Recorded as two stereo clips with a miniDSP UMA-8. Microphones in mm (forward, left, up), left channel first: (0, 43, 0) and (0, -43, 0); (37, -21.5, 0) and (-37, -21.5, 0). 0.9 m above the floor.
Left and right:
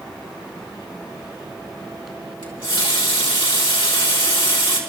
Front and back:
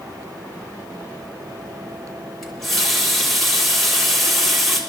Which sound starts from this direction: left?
A running tap, at 2.4 s.